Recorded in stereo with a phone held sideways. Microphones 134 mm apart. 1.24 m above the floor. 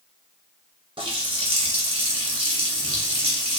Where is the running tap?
40° right (ahead or behind), 0.8 m.